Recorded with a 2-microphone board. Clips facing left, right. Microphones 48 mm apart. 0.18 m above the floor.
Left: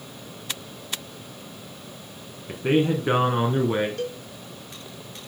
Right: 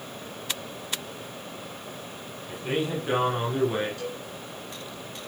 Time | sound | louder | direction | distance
2.5 | a man speaking | left 7 dB | 45° left (ahead or behind) | 1.5 m
4.0 | a cowbell | left 4 dB | 50° left (ahead or behind) | 2 m